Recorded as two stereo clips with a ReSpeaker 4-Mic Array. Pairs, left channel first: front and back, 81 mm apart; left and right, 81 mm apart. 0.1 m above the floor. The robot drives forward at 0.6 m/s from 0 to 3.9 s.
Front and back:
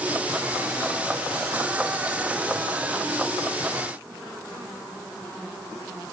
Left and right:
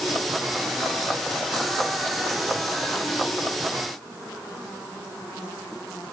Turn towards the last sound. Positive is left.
No sound to turn to.